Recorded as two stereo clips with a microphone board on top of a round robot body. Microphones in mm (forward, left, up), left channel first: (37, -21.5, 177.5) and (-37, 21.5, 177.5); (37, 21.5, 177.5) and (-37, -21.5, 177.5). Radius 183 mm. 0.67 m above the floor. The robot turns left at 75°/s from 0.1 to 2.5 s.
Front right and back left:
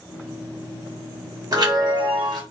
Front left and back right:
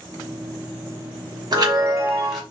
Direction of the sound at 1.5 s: 175° right.